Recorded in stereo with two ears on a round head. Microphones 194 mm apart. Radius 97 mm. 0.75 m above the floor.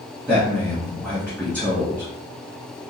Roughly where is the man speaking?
Centre.